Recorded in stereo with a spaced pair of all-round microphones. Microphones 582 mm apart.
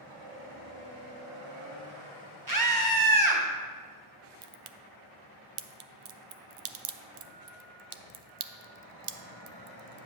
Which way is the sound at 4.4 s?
60° right (ahead or behind).